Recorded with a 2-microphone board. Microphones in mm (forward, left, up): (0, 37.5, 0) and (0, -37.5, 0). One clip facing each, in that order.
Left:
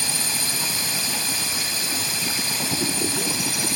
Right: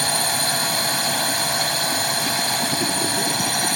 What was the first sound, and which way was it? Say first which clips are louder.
A drone: right 7 dB; 55° right (ahead or behind).